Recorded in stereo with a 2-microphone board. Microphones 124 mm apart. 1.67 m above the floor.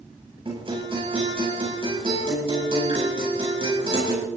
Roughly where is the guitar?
Right.